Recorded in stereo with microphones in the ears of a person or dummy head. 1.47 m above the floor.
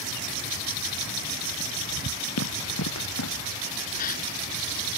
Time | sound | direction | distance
2.4 | running footsteps | 85° left | ?
4.0 | a gasp | 45° left (ahead or behind) | ?